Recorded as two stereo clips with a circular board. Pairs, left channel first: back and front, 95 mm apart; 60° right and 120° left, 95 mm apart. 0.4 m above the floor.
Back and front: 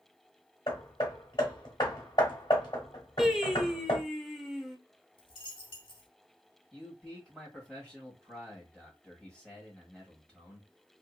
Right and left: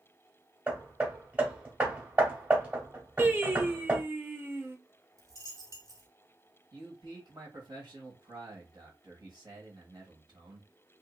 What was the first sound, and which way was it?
Hammering, 170° right.